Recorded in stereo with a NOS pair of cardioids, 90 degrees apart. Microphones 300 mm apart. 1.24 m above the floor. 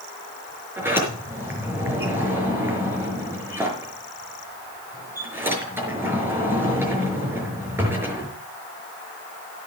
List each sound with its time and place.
0.8 s a sliding door: 5° right, 5.5 m